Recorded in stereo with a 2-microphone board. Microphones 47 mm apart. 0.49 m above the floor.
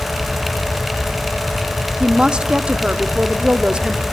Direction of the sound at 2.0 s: 20° right (ahead or behind).